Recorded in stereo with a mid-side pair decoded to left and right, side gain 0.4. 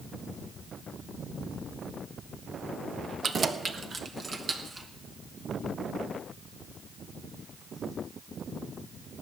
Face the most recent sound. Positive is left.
turn(degrees=-35)